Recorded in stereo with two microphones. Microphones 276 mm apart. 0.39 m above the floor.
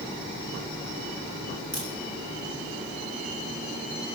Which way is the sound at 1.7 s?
65° right (ahead or behind).